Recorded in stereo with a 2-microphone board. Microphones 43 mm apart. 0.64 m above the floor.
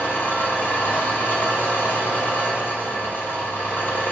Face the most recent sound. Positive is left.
turn(degrees=55)  # may be behind; listen again after turning